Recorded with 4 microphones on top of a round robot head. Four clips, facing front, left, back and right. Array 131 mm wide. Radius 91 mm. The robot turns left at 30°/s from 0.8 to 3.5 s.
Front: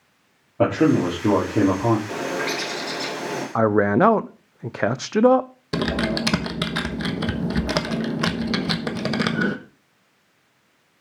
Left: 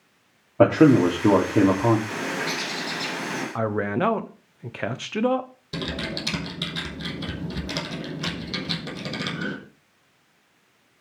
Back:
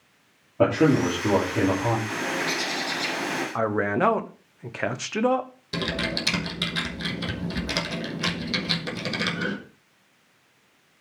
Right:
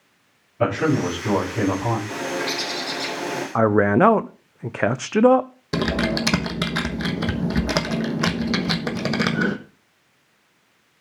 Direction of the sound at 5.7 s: 45° right.